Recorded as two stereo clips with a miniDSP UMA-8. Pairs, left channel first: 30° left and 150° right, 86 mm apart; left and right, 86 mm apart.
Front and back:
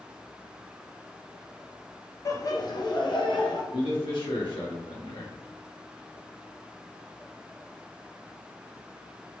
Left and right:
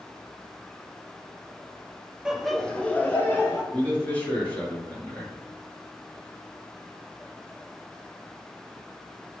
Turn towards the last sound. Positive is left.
turn(degrees=20)